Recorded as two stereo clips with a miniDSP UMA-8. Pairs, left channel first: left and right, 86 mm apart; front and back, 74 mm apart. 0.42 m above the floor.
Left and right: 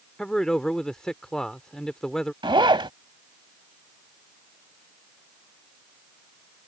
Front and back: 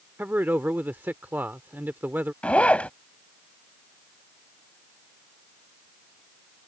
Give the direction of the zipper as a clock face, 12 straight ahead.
2 o'clock.